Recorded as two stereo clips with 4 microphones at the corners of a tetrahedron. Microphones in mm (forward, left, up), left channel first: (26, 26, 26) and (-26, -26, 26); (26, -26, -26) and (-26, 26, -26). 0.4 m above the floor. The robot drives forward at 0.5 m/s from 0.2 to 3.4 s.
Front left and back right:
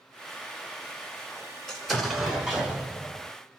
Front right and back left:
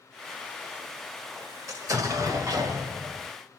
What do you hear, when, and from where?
1.7 s an explosion: 130° left, 0.9 m; by 3.3 s 160° left, 1.5 m